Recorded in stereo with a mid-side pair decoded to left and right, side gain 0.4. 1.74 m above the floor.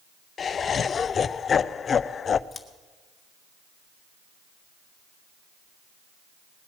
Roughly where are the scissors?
Ahead left.